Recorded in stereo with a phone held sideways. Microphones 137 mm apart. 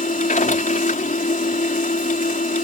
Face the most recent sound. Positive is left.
turn(degrees=75)  # may be behind; listen again after turning